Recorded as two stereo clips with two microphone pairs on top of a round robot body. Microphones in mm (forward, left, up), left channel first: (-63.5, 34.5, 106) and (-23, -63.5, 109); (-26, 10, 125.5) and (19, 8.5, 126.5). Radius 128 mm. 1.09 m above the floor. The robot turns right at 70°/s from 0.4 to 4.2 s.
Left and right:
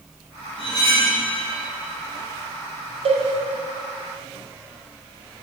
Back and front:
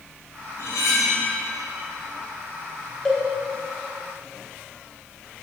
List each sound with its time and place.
0.6 s cutlery clinking: 155° left, 3.5 m; by 1.2 s 165° right, 3.5 m
3.0 s a cowbell: 100° right, 1.9 m; by 3.2 s 90° right, 1.9 m